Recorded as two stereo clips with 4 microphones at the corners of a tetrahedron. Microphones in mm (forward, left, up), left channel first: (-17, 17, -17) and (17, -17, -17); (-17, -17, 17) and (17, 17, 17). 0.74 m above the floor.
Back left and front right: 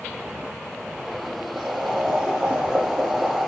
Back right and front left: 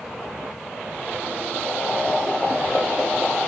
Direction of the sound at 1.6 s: 100° right.